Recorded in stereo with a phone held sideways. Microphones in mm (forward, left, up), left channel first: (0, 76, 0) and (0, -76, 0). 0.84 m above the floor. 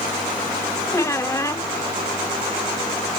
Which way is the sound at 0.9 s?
20° left (ahead or behind).